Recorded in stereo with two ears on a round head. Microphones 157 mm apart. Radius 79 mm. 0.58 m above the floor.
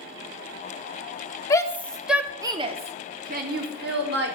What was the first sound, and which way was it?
A shout, 20° left (ahead or behind).